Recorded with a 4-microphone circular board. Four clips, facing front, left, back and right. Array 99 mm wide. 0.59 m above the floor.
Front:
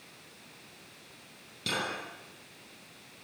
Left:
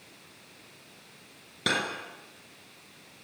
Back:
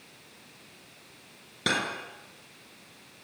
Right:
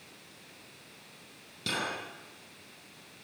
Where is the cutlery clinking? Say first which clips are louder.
Left 5 dB, back 5 dB; 140° left, 4.5 m.